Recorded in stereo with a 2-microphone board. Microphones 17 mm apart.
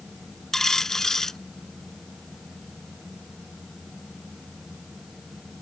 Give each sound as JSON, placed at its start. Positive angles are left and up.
{"t": 0.5, "sound": "a dropped coin", "side_deg": 35}